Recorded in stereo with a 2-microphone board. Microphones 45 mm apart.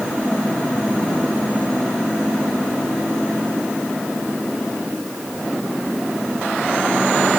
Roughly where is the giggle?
No giggle in this recording.